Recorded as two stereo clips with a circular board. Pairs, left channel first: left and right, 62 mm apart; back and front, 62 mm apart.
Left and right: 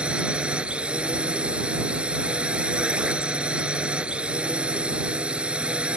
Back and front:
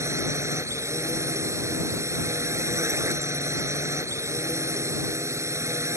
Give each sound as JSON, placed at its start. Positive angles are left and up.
{"t": 0.0, "sound": "a drone", "azimuth_deg": -20}